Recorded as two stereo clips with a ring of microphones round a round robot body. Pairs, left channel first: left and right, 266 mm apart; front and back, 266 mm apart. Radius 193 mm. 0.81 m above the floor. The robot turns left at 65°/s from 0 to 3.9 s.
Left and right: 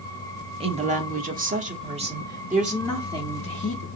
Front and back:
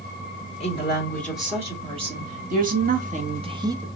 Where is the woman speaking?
40° right, 1.1 m; by 3.9 s 105° left, 1.1 m.